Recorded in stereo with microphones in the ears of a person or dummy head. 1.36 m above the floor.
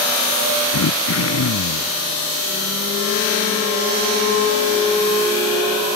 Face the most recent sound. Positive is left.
turn(degrees=85)